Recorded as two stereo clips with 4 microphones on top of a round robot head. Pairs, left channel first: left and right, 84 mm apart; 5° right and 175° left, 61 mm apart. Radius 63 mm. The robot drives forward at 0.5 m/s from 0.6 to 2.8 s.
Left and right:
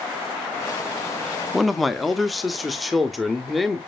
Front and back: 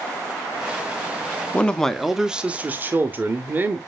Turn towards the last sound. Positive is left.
turn(degrees=180)